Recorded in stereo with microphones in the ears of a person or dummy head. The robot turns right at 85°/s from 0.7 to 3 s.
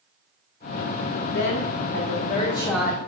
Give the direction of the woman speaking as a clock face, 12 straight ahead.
10 o'clock.